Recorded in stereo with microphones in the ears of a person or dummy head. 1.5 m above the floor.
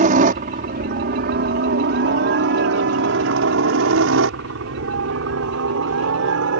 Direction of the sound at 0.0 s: 45° right (ahead or behind).